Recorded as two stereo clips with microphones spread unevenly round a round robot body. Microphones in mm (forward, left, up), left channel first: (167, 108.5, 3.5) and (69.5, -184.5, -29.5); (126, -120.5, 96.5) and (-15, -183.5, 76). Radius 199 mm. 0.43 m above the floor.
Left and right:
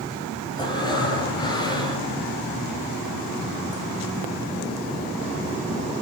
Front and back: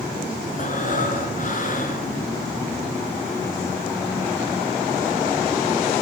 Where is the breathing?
5° right, 6.5 m.